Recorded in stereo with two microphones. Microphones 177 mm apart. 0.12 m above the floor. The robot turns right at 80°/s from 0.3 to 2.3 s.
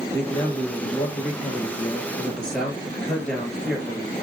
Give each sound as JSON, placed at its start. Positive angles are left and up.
{"t": 0.1, "sound": "a man speaking", "azimuth_deg": 15, "distance_m": 1.8}